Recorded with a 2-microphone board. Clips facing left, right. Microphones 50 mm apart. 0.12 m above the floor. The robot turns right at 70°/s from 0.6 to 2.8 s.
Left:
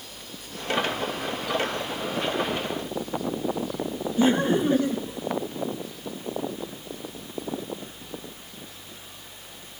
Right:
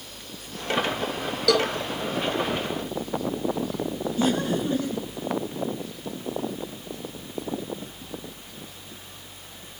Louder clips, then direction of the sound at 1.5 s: Right 6 dB; 80° right.